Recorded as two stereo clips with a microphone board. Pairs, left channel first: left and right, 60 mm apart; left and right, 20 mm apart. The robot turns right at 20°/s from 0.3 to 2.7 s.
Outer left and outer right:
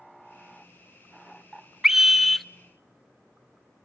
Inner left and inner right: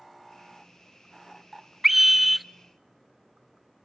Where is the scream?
5° right (ahead or behind), 0.6 m; by 2.5 s 5° left (ahead or behind), 0.6 m.